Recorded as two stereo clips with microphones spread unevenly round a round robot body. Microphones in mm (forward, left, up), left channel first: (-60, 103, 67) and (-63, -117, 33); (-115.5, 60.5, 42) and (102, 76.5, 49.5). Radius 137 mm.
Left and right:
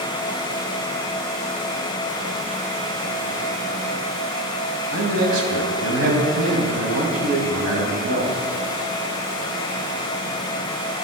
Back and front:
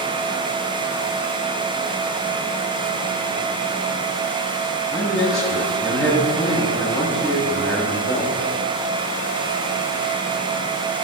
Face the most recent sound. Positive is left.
turn(degrees=-100)